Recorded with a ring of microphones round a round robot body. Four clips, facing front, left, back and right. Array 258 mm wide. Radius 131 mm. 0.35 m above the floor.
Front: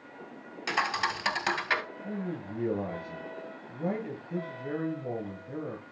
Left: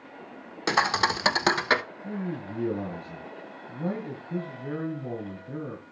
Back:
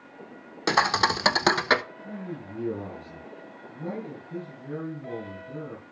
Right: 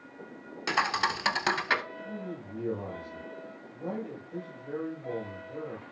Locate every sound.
0.7 s a thud: 150° left, 0.8 m
2.0 s a man speaking: 75° left, 6 m